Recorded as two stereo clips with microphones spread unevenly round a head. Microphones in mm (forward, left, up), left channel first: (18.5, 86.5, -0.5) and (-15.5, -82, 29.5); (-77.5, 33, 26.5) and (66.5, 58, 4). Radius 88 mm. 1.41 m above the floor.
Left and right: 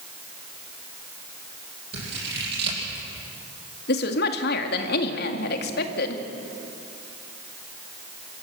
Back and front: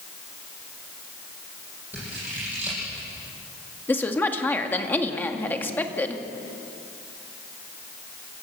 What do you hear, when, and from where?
1.9 s scissors: 75° right, 8 m
3.9 s a woman speaking: 115° left, 2.0 m